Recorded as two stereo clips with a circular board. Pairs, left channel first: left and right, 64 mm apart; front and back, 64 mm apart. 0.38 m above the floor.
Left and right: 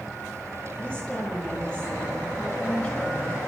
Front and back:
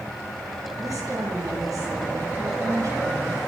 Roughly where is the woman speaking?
Behind.